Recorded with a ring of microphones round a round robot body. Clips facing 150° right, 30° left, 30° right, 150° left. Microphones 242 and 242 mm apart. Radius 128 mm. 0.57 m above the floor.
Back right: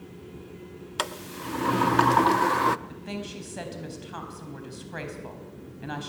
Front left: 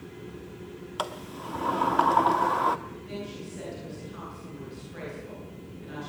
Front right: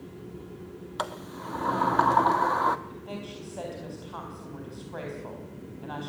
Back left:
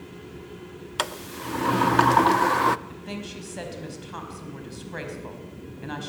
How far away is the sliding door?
About 0.7 m.